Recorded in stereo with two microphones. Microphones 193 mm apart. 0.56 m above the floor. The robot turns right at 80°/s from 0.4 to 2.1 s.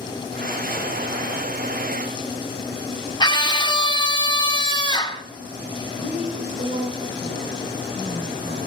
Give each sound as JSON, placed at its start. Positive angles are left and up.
{"t": 3.2, "sound": "a scream", "side_deg": 25, "distance_m": 1.4}
{"t": 6.0, "sound": "a woman speaking", "side_deg": -45, "distance_m": 2.5}